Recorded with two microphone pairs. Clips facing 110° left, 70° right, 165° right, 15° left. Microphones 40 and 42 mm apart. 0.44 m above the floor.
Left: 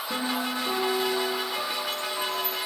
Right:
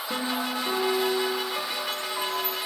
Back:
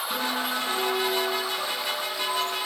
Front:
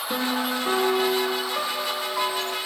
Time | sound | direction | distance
0.1 | a piano | 10° left | 1.6 m